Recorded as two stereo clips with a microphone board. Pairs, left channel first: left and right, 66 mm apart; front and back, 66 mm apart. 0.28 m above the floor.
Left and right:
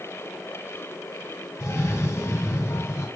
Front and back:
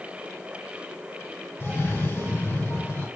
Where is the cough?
55° left, 2.5 m.